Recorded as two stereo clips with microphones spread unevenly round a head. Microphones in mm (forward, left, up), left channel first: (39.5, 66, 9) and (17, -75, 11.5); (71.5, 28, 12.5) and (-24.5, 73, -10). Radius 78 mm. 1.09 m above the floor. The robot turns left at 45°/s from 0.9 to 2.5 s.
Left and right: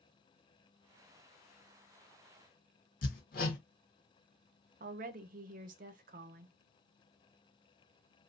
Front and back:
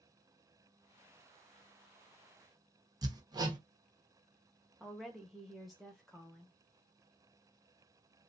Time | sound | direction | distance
3.0 | hammering | 100° left | 1.0 m
4.8 | a woman speaking | 125° right | 0.5 m